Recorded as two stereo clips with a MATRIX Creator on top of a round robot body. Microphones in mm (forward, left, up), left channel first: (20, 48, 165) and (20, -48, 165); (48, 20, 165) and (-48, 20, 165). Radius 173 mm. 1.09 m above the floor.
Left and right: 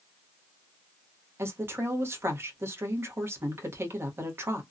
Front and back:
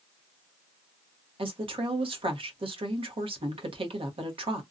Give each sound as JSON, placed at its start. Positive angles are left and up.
{"t": 1.4, "sound": "a woman speaking", "azimuth_deg": -155, "distance_m": 1.0}